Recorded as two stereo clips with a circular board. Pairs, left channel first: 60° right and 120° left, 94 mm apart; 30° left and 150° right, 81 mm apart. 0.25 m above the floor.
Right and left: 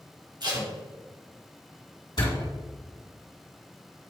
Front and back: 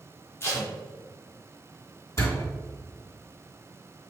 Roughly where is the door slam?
Ahead right.